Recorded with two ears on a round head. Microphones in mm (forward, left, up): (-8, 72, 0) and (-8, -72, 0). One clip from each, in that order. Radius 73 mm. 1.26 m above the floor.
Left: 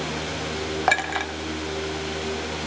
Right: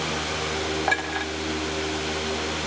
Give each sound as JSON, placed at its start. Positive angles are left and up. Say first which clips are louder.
{"t": 0.9, "sound": "a clink", "louder": "left 5 dB", "side_deg": 20, "distance_m": 0.5}